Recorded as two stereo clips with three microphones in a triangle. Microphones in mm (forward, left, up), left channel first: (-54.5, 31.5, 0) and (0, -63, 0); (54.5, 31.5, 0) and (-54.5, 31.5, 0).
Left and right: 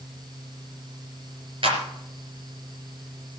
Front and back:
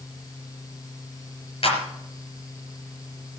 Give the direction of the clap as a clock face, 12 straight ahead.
1 o'clock.